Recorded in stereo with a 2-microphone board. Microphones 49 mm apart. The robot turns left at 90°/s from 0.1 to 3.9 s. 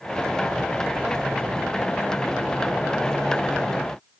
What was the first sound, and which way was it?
Only background noise.